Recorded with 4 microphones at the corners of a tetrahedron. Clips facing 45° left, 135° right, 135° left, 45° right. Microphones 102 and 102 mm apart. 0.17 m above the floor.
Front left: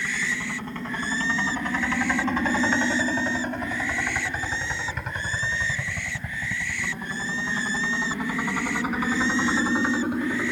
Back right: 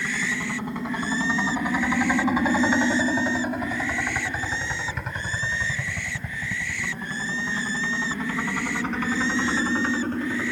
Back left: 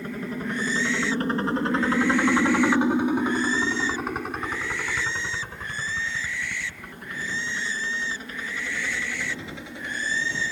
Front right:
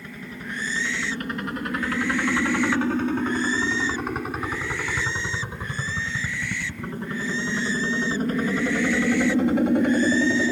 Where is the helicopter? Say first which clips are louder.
Back right 2 dB, back left 6 dB; 155° left; by 10.5 s 30° right.